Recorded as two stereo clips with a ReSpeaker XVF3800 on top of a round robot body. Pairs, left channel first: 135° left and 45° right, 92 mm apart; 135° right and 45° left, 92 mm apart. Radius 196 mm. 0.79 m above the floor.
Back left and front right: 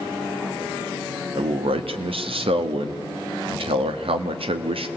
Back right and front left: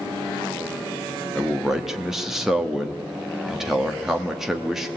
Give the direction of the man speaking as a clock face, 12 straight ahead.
1 o'clock.